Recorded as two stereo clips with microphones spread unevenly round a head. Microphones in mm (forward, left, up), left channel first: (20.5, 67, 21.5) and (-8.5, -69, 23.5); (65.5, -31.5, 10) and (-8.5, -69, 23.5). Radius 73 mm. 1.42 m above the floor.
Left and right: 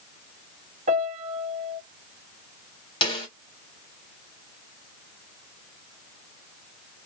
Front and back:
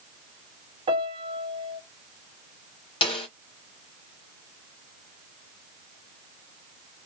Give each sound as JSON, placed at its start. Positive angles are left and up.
{"t": 0.9, "sound": "a piano", "azimuth_deg": -145, "distance_m": 1.5}
{"t": 3.0, "sound": "a snare drum", "azimuth_deg": 25, "distance_m": 1.8}